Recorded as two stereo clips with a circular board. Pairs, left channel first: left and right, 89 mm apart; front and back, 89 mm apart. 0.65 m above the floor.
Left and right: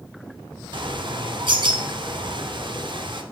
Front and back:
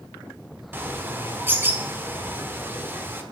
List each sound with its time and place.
0.7 s a bird: 115° right, 0.9 m